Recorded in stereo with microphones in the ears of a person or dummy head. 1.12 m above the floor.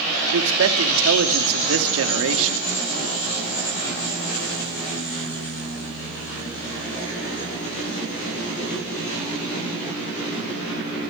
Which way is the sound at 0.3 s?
75° right (ahead or behind).